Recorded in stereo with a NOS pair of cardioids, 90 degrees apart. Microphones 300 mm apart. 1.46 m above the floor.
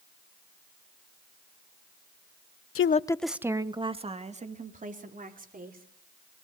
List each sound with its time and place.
2.8 s a woman speaking: 50° left, 0.6 m; by 5.9 s 30° right, 5 m